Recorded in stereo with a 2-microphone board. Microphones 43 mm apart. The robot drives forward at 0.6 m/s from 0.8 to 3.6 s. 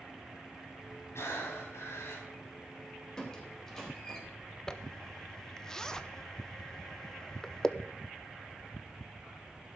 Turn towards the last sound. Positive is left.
turn(degrees=10)  # may be behind; listen again after turning